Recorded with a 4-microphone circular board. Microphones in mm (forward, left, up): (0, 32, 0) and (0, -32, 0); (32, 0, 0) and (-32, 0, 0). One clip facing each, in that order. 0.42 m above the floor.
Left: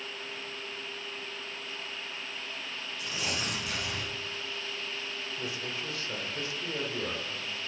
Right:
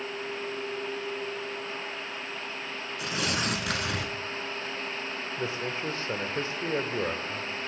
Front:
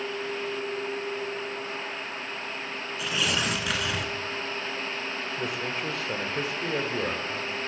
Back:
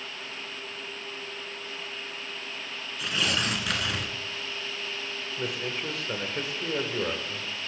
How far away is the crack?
No crack in this recording.